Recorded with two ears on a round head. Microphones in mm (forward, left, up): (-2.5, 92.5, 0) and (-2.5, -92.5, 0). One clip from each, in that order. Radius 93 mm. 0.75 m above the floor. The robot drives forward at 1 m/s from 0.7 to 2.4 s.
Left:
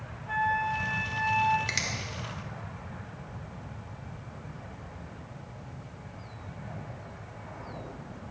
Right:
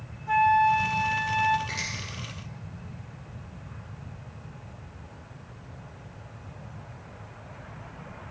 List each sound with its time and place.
0.3 s a flute: 30° right (ahead or behind), 0.7 m; by 1.6 s 20° right (ahead or behind), 1.0 m
1.7 s a finger snap: 65° left (ahead or behind), 2.5 m; by 1.9 s 60° left (ahead or behind), 2.5 m